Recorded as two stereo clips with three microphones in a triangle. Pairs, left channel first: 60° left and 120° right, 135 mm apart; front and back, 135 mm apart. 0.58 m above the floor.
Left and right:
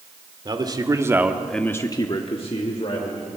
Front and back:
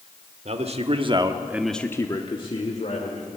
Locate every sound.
0.5 s a man speaking: 165° right, 1.8 m; by 3.3 s 30° left, 2.5 m